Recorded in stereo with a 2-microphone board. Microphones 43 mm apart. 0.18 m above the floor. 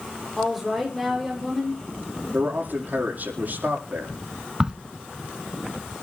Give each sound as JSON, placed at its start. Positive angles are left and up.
{"t": 0.4, "sound": "a woman speaking", "side_deg": 0, "distance_m": 7.5}
{"t": 2.3, "sound": "a man speaking", "side_deg": -50, "distance_m": 6.5}
{"t": 4.6, "sound": "a crack", "side_deg": -25, "distance_m": 0.7}